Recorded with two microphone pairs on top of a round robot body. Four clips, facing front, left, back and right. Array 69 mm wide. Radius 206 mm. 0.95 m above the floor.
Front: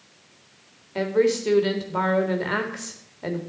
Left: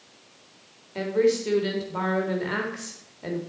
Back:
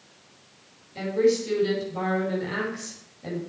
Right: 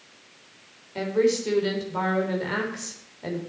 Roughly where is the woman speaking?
Ahead.